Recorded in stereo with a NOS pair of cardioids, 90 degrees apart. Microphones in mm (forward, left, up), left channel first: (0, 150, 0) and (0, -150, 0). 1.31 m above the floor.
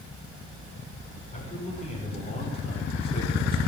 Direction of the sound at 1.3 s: 25° left.